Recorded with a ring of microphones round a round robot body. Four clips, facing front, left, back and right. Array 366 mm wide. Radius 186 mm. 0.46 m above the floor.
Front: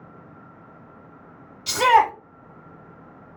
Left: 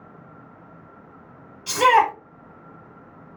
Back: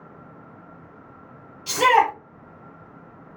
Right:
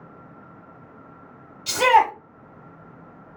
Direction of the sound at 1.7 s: 50° right.